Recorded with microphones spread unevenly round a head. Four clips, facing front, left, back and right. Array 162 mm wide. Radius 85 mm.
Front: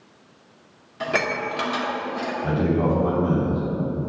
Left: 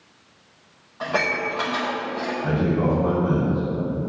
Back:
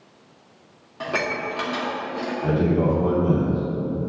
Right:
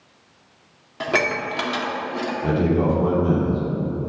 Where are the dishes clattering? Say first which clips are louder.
Right 1 dB, front 2 dB; 80° right, 2 m.